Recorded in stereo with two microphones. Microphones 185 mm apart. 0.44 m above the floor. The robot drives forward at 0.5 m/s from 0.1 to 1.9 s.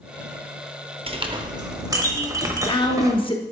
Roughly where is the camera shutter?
I don't hear a camera shutter.